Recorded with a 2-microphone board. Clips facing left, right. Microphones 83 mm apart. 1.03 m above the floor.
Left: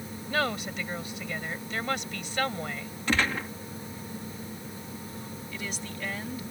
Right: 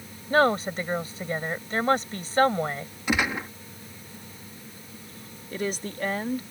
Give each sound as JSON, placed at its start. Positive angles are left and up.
{"t": 0.3, "sound": "a woman speaking", "side_deg": -40}
{"t": 3.1, "sound": "a gunshot", "side_deg": -15}
{"t": 5.5, "sound": "a woman speaking", "side_deg": -45}